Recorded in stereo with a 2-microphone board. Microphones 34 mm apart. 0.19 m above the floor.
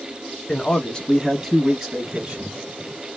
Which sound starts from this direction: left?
A man speaking, at 0.5 s.